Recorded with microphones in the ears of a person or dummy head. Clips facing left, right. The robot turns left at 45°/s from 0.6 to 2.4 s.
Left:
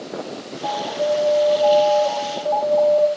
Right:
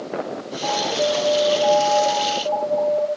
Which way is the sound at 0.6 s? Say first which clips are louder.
Even; 125° right.